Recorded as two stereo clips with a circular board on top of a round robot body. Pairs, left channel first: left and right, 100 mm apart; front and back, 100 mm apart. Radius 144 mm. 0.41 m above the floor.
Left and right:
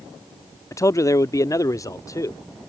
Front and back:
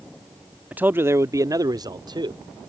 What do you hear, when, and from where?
0.7 s a man speaking: 115° left; by 2.7 s 145° left